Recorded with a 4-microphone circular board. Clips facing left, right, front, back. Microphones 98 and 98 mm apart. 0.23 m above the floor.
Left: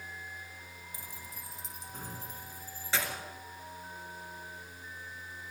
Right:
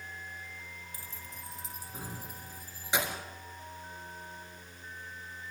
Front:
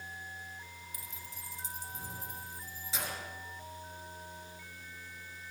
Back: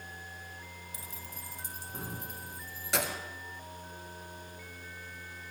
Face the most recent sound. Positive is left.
turn(degrees=-160)